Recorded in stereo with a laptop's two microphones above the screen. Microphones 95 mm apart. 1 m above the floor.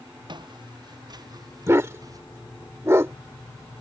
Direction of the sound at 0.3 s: 50° right (ahead or behind).